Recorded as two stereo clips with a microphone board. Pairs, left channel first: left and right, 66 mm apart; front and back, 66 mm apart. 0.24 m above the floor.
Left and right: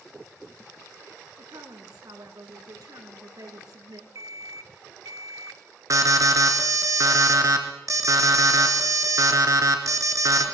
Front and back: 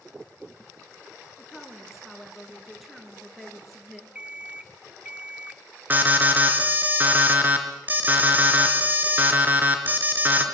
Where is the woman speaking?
90° right, 3.5 m.